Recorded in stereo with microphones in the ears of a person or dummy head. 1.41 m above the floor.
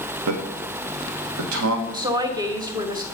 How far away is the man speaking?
About 1.3 m.